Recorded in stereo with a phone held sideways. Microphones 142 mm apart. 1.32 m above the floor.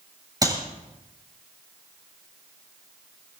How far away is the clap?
About 7.5 m.